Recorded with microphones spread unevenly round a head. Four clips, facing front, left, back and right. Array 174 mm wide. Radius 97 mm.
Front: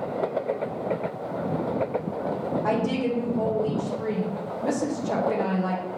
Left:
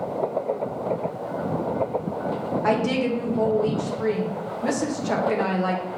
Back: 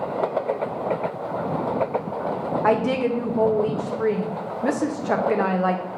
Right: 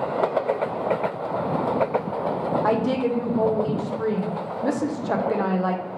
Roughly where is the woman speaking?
Behind.